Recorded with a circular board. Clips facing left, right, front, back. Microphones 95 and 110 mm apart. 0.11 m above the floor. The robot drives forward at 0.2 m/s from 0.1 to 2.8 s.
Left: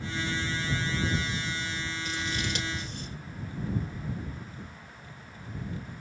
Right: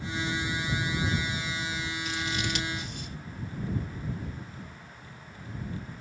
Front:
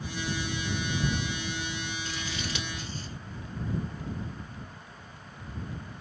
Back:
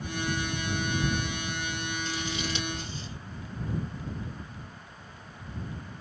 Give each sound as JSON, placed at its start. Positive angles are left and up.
{"t": 2.0, "sound": "scissors", "azimuth_deg": 125, "distance_m": 2.5}